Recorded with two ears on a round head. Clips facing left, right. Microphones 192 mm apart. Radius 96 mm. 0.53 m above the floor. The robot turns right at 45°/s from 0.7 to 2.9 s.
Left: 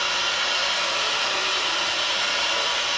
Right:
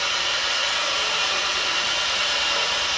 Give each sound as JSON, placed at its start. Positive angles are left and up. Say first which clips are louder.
{"t": 0.0, "sound": "an engine running", "louder": "left 1 dB", "azimuth_deg": -175, "distance_m": 1.2}